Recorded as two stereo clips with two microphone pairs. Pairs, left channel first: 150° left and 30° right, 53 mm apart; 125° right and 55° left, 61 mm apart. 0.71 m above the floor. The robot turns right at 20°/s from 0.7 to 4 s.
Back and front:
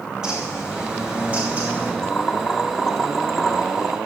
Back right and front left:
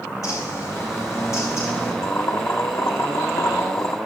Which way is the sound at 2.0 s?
150° right.